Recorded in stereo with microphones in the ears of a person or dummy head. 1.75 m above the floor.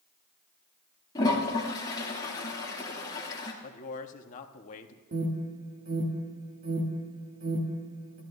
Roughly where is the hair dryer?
No hair dryer in this recording.